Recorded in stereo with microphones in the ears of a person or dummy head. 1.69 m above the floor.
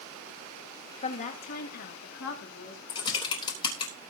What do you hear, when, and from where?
1.0 s a woman speaking: 40° left (ahead or behind), 2 m; by 2.8 s 75° left (ahead or behind), 3 m
2.9 s typing on a keyboard: 25° left (ahead or behind), 3.5 m